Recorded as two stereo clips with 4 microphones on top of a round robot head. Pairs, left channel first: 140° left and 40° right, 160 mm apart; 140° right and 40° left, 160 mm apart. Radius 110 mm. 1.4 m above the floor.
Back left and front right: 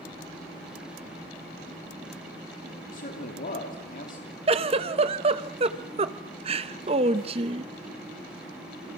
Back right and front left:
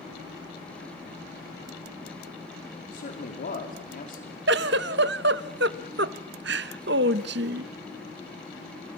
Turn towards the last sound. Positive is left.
turn(degrees=20)